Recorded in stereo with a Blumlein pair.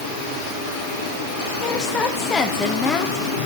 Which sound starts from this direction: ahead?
A woman speaking, at 1.6 s.